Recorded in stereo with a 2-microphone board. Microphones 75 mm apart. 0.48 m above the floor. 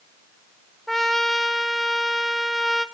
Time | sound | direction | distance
0.9 | a trumpet | 5° left (ahead or behind) | 0.7 m